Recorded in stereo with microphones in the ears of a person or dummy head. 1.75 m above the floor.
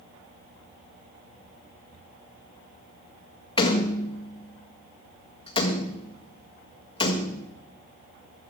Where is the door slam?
30° left (ahead or behind), 1.6 m.